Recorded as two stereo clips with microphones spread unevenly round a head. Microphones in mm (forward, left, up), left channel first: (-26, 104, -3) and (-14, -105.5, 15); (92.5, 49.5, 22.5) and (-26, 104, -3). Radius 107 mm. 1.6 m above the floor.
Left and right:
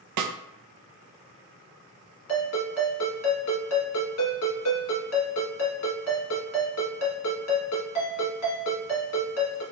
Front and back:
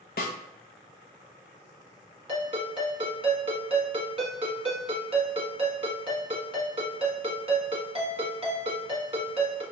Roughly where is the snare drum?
Right.